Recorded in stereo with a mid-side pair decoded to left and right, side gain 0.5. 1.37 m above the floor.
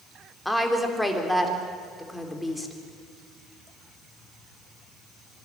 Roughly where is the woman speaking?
Ahead.